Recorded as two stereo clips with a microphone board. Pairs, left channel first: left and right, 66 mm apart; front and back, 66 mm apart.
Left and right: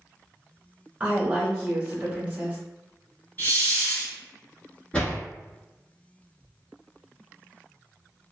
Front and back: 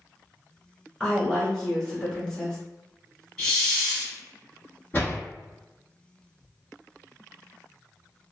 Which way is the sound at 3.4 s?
70° left.